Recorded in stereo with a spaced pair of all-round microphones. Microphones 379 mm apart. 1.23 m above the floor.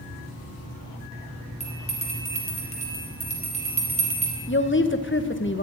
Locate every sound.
1.6 s a bell: 15° left (ahead or behind), 3.5 m
4.5 s a woman speaking: 30° left (ahead or behind), 0.9 m